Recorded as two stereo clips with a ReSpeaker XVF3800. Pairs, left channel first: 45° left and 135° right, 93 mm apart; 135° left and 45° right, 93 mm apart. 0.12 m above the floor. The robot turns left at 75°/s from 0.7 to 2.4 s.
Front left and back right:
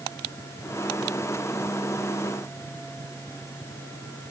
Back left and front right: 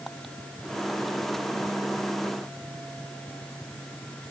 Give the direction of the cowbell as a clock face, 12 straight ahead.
I don't hear a cowbell.